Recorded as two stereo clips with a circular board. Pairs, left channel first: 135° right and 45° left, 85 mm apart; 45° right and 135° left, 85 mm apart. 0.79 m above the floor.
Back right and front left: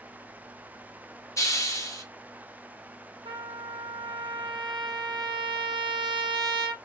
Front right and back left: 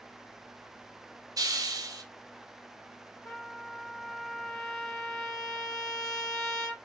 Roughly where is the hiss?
Behind.